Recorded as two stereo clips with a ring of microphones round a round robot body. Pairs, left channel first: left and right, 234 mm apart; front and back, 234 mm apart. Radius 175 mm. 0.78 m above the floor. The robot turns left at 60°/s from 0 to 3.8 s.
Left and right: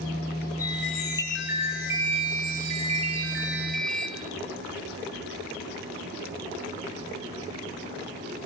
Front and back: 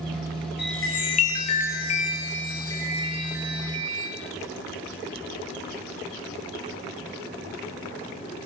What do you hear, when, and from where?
0.6 s a chime: 45° left, 5.5 m; by 4.1 s 145° right, 5.5 m